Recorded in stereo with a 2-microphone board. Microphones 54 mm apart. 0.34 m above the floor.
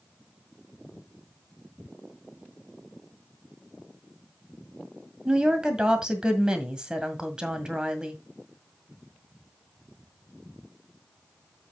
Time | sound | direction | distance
5.2 | a woman speaking | 15° right (ahead or behind) | 1.8 m